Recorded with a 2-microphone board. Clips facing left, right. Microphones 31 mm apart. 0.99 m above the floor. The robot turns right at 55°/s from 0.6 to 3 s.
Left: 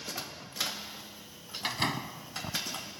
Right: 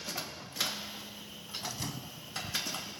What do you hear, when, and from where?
1.6 s a door slam: 45° left; by 2.6 s 100° left